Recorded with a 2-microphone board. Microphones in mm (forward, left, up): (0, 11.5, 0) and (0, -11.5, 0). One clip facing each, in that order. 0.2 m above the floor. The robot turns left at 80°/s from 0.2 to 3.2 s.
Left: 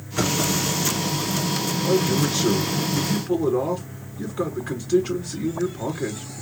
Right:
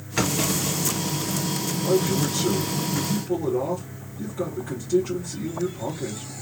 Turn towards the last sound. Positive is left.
turn(degrees=55)